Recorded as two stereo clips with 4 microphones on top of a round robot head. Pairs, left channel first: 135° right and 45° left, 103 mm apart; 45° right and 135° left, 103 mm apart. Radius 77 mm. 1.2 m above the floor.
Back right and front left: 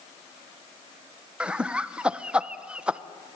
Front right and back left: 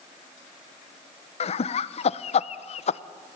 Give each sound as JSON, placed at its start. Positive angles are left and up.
{"t": 1.4, "sound": "laughter", "azimuth_deg": -35, "distance_m": 0.8}